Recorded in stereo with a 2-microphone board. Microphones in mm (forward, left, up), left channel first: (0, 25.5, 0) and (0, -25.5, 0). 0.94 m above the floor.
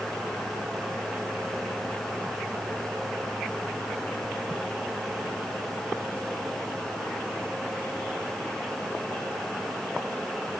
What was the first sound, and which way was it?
Only background noise.